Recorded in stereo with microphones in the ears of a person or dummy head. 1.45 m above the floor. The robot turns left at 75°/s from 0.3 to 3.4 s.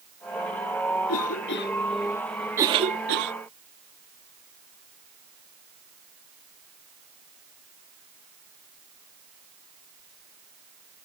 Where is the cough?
80° left; by 3.3 s 75° right (ahead or behind).